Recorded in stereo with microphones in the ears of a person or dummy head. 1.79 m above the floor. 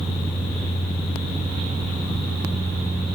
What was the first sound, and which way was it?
Only background noise.